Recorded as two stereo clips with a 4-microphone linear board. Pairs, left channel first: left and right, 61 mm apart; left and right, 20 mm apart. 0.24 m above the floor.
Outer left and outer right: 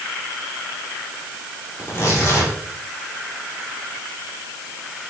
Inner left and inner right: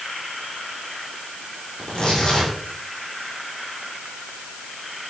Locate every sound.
1.8 s tearing paper: 40° left (ahead or behind), 8.5 m